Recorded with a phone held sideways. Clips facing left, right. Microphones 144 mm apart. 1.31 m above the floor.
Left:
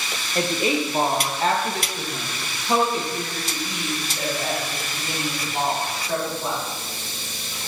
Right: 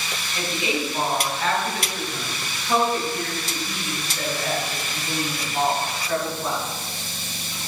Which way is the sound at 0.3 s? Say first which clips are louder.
Left 4 dB; 50° left (ahead or behind).